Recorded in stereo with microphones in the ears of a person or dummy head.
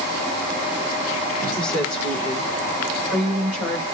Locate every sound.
1.6 s a woman speaking: centre (ahead or behind), 7.5 m; by 3.8 s 10° right (ahead or behind), 6 m